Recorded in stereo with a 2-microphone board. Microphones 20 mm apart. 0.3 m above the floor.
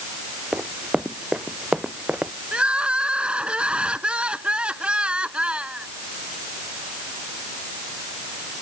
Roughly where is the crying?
Right.